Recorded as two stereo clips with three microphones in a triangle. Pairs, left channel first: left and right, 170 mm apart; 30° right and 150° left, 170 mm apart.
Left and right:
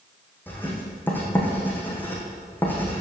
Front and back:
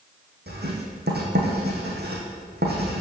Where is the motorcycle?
I don't hear a motorcycle.